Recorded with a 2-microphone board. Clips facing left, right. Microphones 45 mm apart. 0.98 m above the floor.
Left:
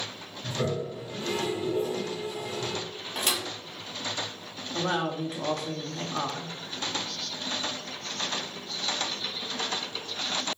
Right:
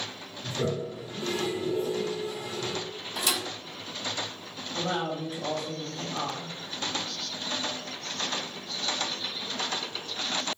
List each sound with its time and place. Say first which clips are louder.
0.4 s a toilet flushing: even; 25° left (ahead or behind), 1.5 m
3.1 s a thud: even; 40° left (ahead or behind), 1.2 m
4.7 s a woman speaking: left 2 dB; 70° left (ahead or behind), 0.7 m